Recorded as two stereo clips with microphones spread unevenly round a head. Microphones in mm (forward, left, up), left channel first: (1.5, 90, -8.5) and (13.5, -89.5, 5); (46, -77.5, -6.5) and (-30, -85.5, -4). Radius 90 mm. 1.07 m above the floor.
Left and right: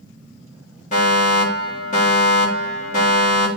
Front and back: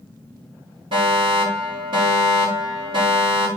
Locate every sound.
0.9 s a fire alarm: 145° left, 6.5 m